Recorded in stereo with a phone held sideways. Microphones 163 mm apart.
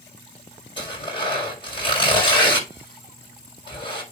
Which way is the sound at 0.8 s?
30° left (ahead or behind).